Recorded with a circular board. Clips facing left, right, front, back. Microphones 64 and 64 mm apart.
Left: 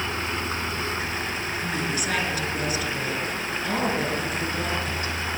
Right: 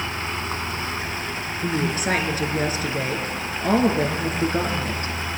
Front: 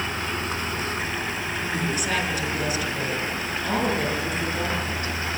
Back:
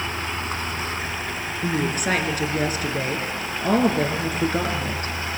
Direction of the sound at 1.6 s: 140° right.